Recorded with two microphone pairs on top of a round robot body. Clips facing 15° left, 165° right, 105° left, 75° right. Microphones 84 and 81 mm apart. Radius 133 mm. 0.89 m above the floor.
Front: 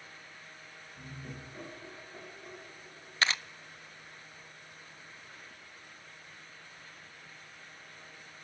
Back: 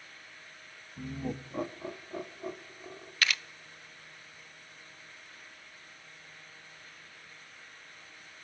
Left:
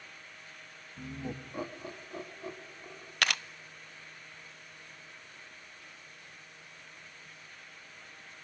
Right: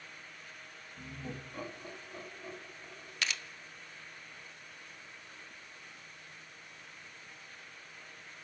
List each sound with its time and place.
1.0 s laughter: 175° right, 1.4 m; by 3.1 s straight behind, 3.5 m
3.2 s a camera shutter: 75° left, 0.5 m